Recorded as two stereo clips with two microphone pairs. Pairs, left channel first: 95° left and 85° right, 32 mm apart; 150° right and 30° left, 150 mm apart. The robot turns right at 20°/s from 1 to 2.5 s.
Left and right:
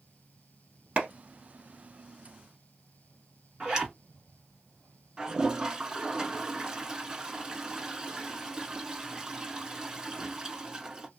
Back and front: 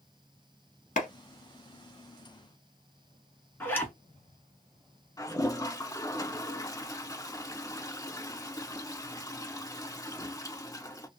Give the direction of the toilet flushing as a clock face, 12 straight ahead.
4 o'clock.